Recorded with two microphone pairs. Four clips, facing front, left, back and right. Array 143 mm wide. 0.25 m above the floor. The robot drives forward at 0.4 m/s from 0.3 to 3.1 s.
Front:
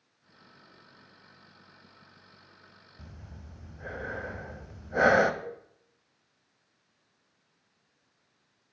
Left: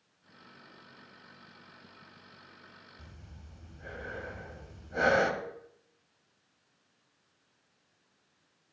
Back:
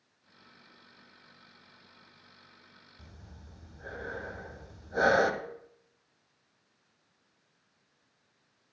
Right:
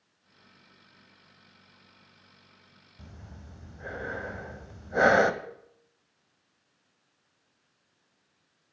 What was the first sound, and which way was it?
Breathing, 55° right.